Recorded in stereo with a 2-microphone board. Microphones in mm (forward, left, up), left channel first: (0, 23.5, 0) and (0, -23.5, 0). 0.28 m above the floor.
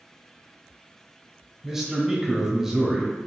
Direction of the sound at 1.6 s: 10° right (ahead or behind).